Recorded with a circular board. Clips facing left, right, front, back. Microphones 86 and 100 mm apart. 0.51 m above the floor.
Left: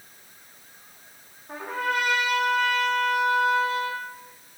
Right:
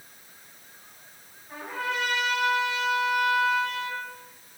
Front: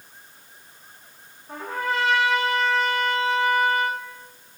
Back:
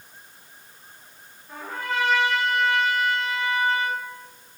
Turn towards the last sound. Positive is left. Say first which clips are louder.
# left 4 dB, front 3 dB
turn(degrees=55)